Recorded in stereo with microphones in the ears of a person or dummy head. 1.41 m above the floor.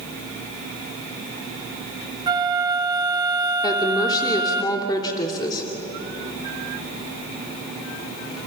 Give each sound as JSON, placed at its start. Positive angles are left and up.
{"t": 2.3, "sound": "a flute", "side_deg": -20, "distance_m": 1.3}
{"t": 3.6, "sound": "a woman speaking", "side_deg": 25, "distance_m": 3.0}